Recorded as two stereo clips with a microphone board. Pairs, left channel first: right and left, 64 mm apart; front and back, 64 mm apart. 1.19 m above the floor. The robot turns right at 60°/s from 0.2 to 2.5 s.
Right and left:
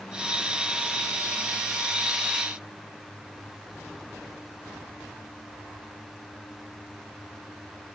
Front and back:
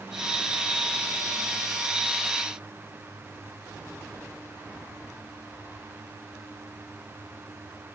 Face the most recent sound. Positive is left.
No sound to turn to.